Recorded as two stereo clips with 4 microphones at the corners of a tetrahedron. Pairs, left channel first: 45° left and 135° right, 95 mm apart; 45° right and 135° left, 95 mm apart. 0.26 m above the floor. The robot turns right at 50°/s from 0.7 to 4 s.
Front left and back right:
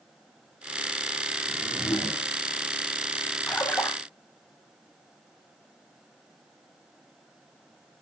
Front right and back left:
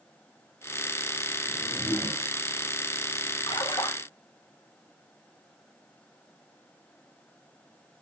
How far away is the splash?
About 1.0 m.